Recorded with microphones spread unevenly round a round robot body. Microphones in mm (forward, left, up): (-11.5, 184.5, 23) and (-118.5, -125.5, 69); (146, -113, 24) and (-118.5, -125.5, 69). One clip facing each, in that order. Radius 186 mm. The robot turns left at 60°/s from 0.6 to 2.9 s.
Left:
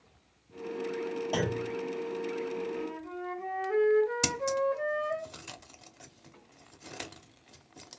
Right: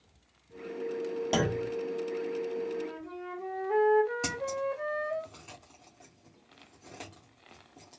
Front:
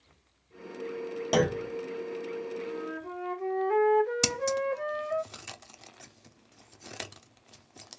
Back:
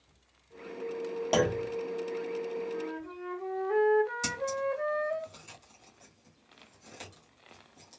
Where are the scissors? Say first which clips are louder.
Left 3 dB, front 3 dB; 10° left, 0.6 m.